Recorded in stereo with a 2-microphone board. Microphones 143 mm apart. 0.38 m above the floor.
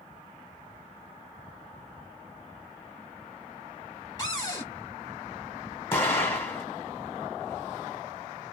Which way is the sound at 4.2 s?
25° left (ahead or behind).